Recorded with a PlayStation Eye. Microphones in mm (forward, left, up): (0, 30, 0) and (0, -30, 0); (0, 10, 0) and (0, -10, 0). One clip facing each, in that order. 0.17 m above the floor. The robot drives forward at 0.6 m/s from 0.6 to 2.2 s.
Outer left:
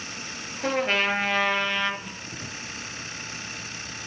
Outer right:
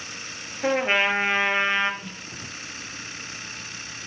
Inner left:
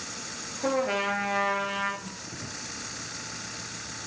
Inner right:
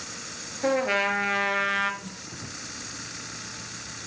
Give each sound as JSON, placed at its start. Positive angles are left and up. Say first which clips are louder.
{"t": 0.6, "sound": "a trumpet", "louder": "outer right 3 dB, inner right 3 dB", "side_deg": -20, "distance_m": 2.5}
{"t": 2.0, "sound": "a snare drum", "louder": "even, even", "side_deg": -80, "distance_m": 8.0}